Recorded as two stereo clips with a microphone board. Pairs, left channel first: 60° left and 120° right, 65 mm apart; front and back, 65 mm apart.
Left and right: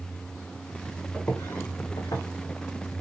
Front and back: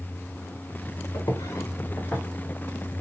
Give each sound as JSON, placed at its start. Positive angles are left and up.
{"t": 1.1, "sound": "footsteps", "azimuth_deg": -10, "distance_m": 1.0}